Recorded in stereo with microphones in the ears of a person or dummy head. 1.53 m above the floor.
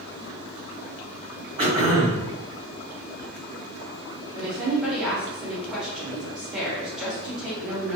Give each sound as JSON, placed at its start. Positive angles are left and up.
{"t": 1.6, "sound": "throat clearing", "side_deg": -45, "distance_m": 1.9}
{"t": 4.3, "sound": "a woman speaking", "side_deg": -5, "distance_m": 1.2}